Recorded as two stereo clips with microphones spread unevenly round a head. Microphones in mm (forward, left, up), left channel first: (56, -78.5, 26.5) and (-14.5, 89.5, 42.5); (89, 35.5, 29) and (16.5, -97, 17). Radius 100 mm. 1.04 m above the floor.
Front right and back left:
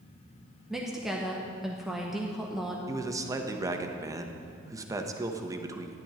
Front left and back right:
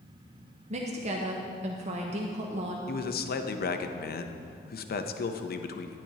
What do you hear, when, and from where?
0.7 s a woman speaking: 155° right, 0.7 m
2.9 s a man speaking: 40° left, 0.6 m